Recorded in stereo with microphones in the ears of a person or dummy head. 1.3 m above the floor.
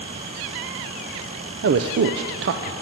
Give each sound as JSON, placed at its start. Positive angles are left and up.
{"t": 1.6, "sound": "a man speaking", "side_deg": -60, "distance_m": 0.5}